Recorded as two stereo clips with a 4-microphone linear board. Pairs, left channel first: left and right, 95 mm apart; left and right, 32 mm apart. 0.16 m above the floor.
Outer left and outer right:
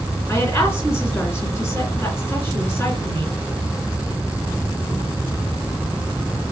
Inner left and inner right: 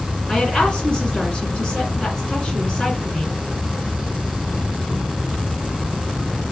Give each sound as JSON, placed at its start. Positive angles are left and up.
{"t": 0.3, "sound": "a woman speaking", "side_deg": 25, "distance_m": 2.0}